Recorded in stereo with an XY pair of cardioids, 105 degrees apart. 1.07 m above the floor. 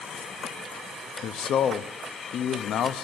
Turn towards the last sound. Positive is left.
turn(degrees=70)